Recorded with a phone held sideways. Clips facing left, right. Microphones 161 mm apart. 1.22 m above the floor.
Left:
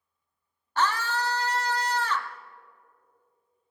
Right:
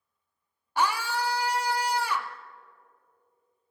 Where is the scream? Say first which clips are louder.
Even; 10° right (ahead or behind), 0.6 m.